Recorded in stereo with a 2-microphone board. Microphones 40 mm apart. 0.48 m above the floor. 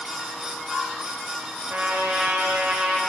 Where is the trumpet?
55° right (ahead or behind), 1.2 m.